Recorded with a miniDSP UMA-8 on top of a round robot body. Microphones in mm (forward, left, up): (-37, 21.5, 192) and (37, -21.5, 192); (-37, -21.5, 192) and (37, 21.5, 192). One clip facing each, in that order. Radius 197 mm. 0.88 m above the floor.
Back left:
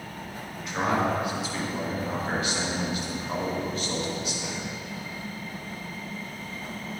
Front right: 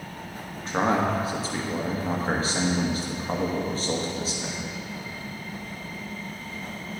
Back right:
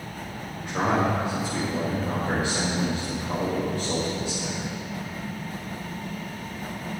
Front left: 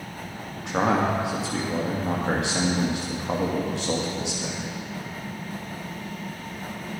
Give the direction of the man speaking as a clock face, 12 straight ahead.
11 o'clock.